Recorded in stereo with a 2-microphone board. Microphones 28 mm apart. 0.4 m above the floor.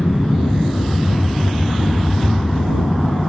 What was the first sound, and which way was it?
An aircraft, 50° left (ahead or behind).